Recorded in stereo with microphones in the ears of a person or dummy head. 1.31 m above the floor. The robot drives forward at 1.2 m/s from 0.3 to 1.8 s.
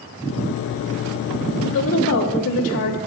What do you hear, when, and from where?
1.6 s a woman speaking: 65° left (ahead or behind), 3 m; by 3.0 s 70° left (ahead or behind), 2.5 m